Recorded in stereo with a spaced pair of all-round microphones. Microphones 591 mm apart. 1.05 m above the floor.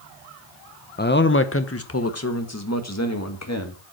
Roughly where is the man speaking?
Centre.